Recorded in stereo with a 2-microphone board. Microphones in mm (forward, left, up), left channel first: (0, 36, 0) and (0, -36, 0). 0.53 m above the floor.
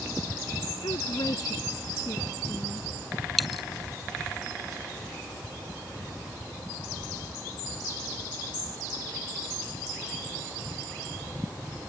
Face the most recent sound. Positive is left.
turn(degrees=0)  # may be behind; listen again after turning